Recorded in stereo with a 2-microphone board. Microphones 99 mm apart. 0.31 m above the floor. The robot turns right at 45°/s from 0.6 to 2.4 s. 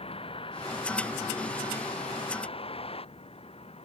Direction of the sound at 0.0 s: 65° left (ahead or behind).